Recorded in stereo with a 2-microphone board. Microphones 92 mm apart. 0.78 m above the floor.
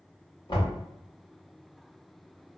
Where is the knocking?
65° left (ahead or behind), 1.5 m.